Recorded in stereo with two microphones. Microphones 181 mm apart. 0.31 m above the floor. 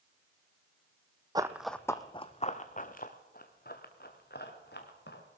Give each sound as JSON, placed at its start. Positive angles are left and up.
{"t": 1.4, "sound": "running footsteps", "side_deg": -20, "distance_m": 0.8}